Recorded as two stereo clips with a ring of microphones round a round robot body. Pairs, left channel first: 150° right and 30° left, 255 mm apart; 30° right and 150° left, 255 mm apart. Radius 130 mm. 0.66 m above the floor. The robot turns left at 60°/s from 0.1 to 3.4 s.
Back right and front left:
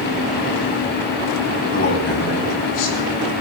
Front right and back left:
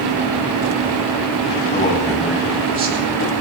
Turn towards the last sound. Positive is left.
turn(degrees=170)